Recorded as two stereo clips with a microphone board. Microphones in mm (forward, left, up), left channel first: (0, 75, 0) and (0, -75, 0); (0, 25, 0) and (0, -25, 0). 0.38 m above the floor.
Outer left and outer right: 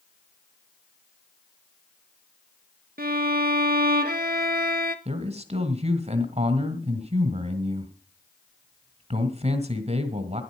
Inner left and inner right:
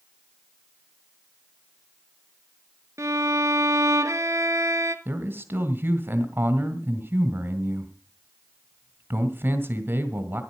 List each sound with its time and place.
3.0 s a violin: 75° right (ahead or behind), 0.8 m
5.0 s a man speaking: 45° right (ahead or behind), 1.7 m